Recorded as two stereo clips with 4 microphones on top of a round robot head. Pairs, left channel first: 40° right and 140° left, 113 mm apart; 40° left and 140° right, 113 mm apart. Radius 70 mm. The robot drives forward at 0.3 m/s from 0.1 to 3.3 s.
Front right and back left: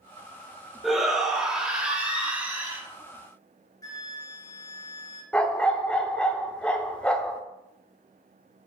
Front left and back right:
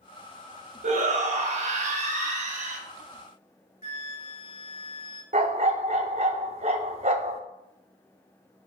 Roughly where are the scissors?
I don't hear scissors.